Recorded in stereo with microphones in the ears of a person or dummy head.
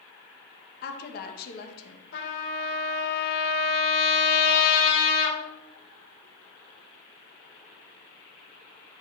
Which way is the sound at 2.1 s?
75° left (ahead or behind).